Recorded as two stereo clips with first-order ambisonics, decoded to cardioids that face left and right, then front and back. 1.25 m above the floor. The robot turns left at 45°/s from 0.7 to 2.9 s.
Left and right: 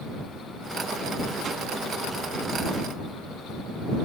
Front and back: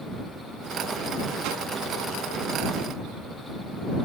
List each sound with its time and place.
1.4 s a whoosh: 155° right; by 1.7 s 165° right